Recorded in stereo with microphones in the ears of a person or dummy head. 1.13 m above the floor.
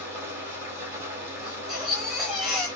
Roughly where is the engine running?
Centre.